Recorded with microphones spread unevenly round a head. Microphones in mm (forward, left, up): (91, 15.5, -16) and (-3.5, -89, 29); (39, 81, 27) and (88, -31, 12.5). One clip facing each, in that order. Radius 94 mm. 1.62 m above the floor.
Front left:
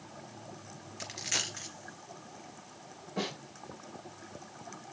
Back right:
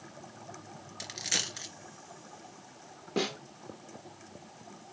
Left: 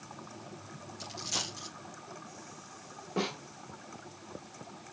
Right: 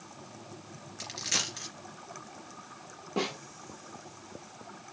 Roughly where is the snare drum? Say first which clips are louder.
Back right 4 dB, right 1 dB; behind right.